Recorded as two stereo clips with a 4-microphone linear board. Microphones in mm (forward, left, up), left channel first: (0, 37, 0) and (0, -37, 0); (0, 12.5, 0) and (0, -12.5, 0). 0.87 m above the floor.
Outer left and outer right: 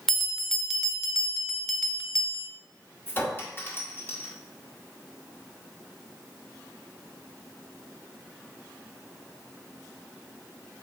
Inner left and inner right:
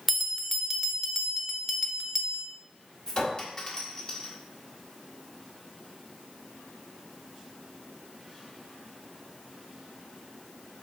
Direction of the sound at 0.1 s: 5° left (ahead or behind).